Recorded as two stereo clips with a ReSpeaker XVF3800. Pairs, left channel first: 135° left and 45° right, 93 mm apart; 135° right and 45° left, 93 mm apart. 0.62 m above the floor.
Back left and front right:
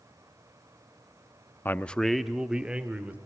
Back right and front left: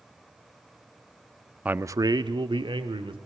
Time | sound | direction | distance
1.6 | a man speaking | 105° left | 0.6 m